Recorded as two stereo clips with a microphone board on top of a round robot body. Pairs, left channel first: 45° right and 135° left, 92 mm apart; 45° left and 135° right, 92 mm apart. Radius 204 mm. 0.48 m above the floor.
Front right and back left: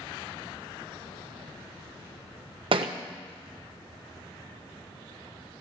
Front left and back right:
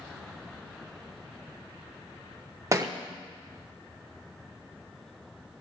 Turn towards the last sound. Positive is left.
turn(degrees=165)